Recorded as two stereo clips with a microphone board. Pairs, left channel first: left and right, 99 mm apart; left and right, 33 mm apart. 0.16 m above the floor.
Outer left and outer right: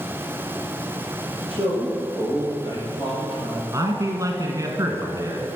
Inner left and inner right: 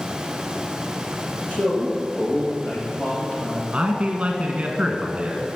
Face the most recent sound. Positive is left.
turn(degrees=-35)  # may be behind; listen again after turning